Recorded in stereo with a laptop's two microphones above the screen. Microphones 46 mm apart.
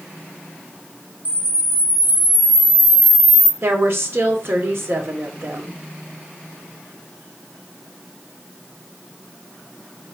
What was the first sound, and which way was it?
A camera shutter, 35° right (ahead or behind).